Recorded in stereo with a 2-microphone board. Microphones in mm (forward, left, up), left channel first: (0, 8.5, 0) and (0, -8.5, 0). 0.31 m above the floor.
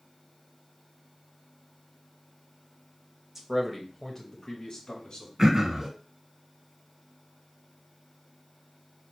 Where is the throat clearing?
25° right (ahead or behind), 0.7 m.